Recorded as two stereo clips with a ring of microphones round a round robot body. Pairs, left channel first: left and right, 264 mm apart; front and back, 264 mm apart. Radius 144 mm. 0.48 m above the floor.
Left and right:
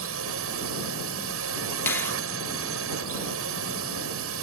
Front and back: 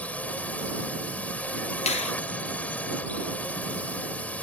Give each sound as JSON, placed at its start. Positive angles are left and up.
{"t": 0.0, "sound": "a drone", "azimuth_deg": -85}
{"t": 1.9, "sound": "a finger snap", "azimuth_deg": 20}